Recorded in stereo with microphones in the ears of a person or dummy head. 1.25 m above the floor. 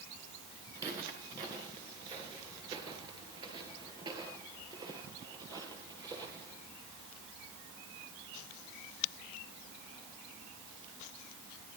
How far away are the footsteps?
About 5 m.